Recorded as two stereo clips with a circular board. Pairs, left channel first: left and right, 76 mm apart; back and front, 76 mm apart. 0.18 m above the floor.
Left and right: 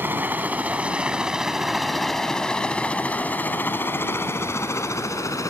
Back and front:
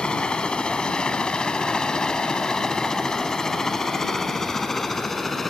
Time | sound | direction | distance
0.0 | a helicopter | 115° right | ?